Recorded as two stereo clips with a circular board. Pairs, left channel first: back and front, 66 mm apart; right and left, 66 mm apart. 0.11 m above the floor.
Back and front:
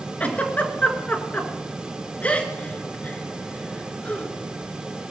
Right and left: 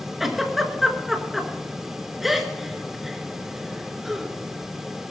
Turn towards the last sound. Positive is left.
turn(degrees=170)